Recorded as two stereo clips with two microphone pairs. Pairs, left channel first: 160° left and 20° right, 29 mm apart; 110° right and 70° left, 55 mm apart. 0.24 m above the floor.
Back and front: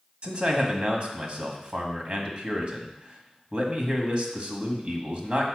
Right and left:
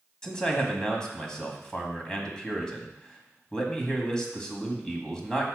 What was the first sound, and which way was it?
A man speaking, 40° right.